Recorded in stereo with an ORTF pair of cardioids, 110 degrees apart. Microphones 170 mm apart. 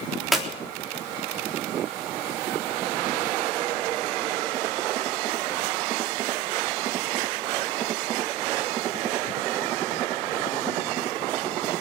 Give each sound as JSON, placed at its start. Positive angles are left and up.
{"t": 0.3, "sound": "a clap", "azimuth_deg": 0, "distance_m": 3.5}